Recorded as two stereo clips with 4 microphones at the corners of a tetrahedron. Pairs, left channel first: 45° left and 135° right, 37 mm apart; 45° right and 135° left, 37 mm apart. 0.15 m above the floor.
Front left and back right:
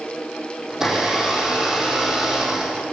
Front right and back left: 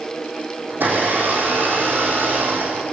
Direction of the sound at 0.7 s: 150° left.